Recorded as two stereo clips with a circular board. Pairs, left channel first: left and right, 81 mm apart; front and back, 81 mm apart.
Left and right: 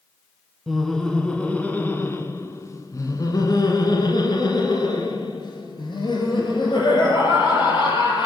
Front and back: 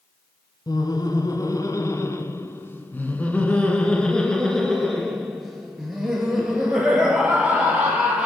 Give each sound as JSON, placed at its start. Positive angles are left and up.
{"t": 0.7, "sound": "laughter", "azimuth_deg": 0, "distance_m": 2.0}